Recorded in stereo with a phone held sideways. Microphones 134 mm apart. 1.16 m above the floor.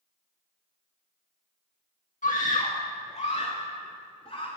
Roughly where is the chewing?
No chewing in this recording.